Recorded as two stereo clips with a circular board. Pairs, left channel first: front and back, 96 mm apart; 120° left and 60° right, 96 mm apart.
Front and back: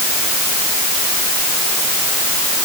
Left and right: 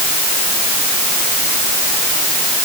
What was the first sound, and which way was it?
Only background noise.